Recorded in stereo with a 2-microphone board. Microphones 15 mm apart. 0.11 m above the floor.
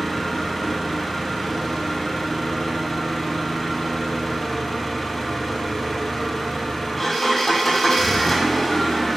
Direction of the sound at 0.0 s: 25° left (ahead or behind).